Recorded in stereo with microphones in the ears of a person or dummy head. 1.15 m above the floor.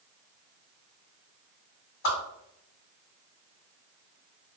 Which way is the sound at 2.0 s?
60° left (ahead or behind).